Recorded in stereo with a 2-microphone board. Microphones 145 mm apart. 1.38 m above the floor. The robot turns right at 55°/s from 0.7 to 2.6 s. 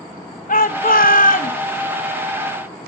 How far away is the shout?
About 1.1 m.